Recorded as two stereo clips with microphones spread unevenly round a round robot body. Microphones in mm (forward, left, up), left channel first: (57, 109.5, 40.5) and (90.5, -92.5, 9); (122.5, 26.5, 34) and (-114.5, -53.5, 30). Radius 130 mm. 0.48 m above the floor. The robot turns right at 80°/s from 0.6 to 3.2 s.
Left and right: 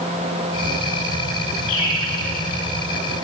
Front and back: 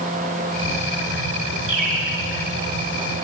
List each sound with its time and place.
1.7 s a bird: 130° left, 2.5 m; by 2.0 s 160° left, 2.5 m